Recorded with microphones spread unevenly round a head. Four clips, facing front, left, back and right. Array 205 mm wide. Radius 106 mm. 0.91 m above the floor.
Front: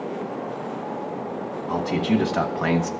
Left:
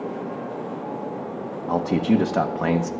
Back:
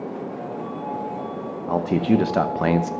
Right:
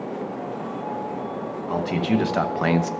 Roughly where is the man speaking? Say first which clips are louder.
Left 3 dB, back 3 dB; behind left.